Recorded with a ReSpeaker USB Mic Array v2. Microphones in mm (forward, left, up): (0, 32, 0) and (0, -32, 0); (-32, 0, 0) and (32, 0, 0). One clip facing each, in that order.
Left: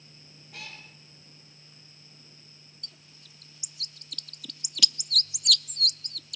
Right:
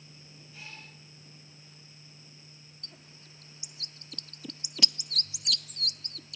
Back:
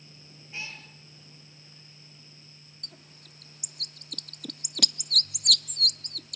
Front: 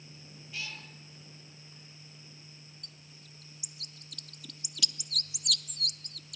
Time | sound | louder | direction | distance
0.5 | a cat meowing | left 4 dB, back 2 dB | 115° left | 4.5 m
2.8 | a bird | right 1 dB, back 3 dB | 150° right | 0.5 m